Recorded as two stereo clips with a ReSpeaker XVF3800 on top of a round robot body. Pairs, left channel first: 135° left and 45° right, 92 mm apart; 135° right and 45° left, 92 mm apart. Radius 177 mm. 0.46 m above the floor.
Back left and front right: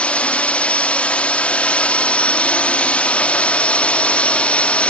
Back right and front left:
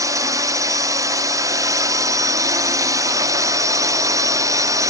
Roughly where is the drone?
Ahead left.